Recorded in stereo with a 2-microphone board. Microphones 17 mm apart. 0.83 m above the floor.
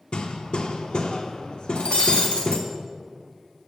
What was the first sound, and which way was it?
Hammering, 55° left (ahead or behind).